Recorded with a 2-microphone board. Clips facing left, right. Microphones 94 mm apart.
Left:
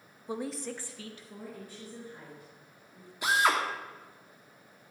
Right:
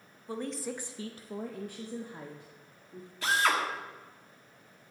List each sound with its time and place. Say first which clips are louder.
0.3 s a woman speaking: even; 15° left (ahead or behind), 0.6 m; by 3.1 s 80° right, 1.7 m
3.2 s a drill: left 1 dB; 15° left (ahead or behind), 1.5 m